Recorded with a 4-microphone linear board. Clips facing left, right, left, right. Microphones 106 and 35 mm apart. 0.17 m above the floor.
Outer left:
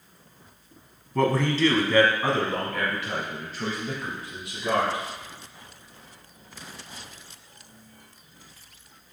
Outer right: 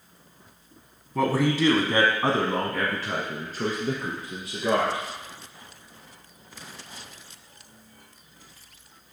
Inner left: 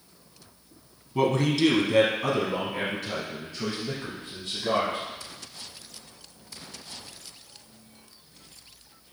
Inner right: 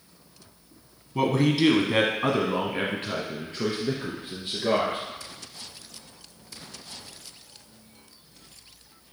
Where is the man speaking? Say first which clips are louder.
Even, inner right 1 dB; centre (ahead or behind), 1.0 m; by 5.0 s 45° right (ahead or behind), 2.5 m.